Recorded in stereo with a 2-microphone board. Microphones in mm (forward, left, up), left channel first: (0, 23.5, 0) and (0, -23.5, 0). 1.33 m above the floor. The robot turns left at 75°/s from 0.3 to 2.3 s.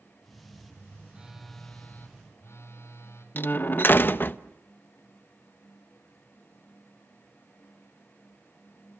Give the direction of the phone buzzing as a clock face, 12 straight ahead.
5 o'clock.